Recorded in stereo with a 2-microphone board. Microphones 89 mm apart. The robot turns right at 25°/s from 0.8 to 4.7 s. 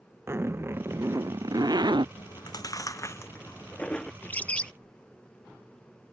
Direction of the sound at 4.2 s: 20° left (ahead or behind).